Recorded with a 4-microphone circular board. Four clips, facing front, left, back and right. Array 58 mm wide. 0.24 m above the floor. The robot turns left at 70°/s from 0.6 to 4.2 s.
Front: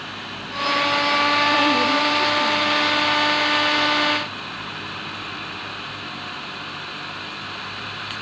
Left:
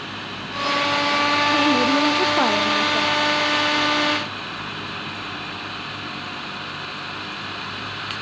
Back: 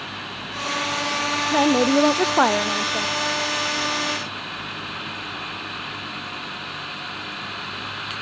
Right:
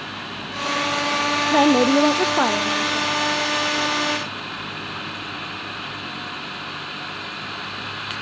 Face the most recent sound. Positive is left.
turn(degrees=60)